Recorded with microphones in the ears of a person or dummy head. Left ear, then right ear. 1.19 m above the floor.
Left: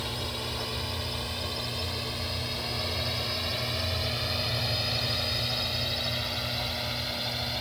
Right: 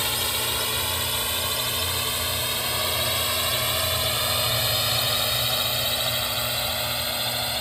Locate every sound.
0.0 s a drone: 55° right (ahead or behind); by 7.6 s 40° right (ahead or behind)